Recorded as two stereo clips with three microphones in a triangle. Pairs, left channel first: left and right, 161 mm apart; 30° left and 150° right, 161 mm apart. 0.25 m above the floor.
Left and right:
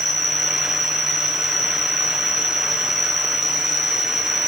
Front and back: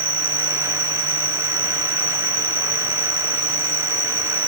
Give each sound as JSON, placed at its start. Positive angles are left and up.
{"t": 0.0, "sound": "an insect", "azimuth_deg": 180, "distance_m": 2.5}